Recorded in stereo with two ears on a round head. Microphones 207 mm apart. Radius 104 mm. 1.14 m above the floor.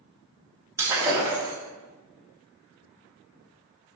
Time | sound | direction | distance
0.8 | breaking glass | 10° right (ahead or behind) | 1.5 m